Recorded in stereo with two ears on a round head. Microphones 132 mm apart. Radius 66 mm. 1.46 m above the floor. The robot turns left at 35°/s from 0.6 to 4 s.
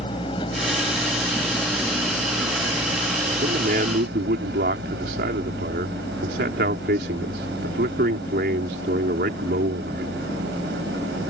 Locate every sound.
0.0 s an engine running: 35° left; by 11.3 s 85° right
3.4 s a man speaking: 50° right (ahead or behind); by 10.2 s 75° right (ahead or behind)